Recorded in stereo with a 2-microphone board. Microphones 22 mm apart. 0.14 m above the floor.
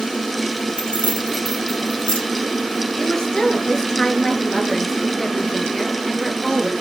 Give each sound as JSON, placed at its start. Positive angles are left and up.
{"t": 0.8, "sound": "keys jangling", "side_deg": 60, "distance_m": 2.5}
{"t": 3.0, "sound": "a woman speaking", "side_deg": 30, "distance_m": 2.5}